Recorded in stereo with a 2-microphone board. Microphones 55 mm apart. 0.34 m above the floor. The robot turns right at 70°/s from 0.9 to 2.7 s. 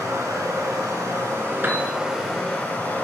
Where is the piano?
40° right (ahead or behind), 1.0 m; by 1.9 s 25° right (ahead or behind), 1.0 m.